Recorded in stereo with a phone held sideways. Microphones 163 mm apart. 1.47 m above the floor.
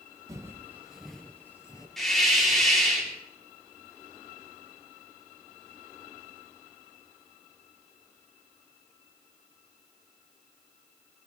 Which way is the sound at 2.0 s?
Centre (ahead or behind).